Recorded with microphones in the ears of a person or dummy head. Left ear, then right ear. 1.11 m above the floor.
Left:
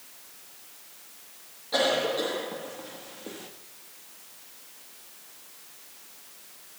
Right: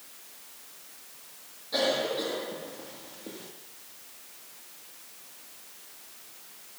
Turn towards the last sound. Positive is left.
turn(degrees=30)  # may be behind; listen again after turning